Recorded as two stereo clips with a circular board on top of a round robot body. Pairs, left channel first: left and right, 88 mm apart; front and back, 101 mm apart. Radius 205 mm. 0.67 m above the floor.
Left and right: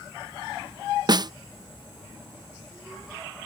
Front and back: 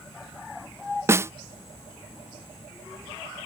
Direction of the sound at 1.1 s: 120° right.